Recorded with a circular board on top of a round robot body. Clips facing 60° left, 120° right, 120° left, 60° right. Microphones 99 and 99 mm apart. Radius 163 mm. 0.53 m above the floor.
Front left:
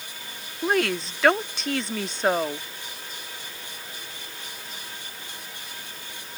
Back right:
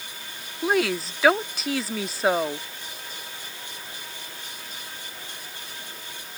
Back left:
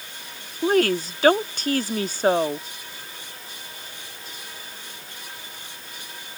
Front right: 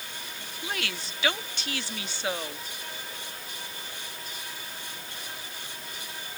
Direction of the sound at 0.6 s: 155° left.